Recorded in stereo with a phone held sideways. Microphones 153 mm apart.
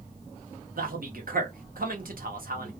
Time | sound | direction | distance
0.8 | a man speaking | 70° right (ahead or behind) | 1.1 m